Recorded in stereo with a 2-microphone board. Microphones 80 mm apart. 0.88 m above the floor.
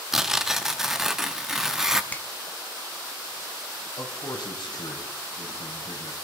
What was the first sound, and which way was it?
Tearing paper, 5° right (ahead or behind).